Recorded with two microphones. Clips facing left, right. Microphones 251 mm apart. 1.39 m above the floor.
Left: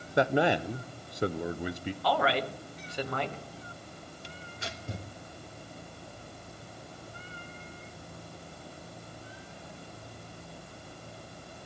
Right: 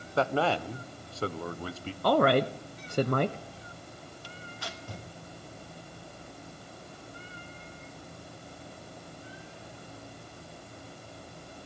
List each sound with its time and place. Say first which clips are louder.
0.2 s a man speaking: left 2 dB; 15° left (ahead or behind), 0.6 m
2.0 s a woman speaking: right 7 dB; 50° right (ahead or behind), 0.6 m
4.2 s tearing paper: left 1 dB; 20° left (ahead or behind), 1.3 m